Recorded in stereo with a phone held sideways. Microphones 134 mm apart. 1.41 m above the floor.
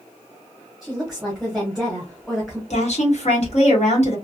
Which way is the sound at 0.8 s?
5° right (ahead or behind).